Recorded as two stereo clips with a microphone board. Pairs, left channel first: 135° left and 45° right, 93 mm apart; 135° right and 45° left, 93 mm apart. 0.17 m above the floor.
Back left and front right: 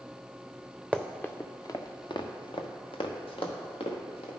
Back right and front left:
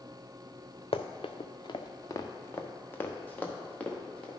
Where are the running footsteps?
140° right, 0.8 m; by 4.3 s 145° left, 2.5 m.